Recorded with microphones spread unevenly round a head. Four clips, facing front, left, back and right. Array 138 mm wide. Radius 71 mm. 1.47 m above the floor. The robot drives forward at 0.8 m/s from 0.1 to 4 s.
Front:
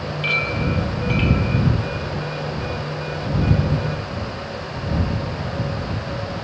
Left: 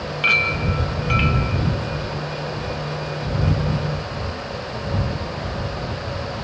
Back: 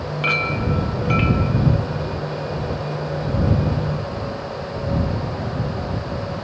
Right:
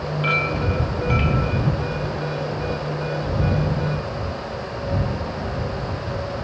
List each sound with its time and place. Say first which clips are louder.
0.2 s a clink: even, back 2 dB; 125° left, 3 m; by 1.5 s 135° left, 3.5 m